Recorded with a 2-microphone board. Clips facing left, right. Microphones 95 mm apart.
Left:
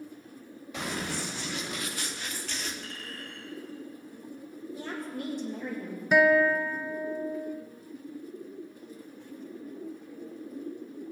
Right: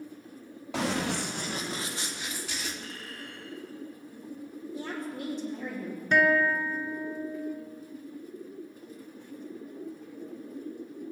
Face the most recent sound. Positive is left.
turn(degrees=5)  # may be behind; listen again after turning